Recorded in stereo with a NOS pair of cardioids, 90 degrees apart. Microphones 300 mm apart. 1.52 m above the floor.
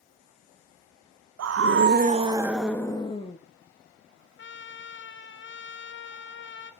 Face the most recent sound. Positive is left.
turn(degrees=40)